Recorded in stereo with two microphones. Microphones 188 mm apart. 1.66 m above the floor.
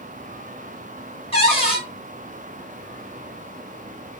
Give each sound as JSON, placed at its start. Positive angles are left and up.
{"t": 1.3, "sound": "a cupboard door", "side_deg": 30, "distance_m": 1.3}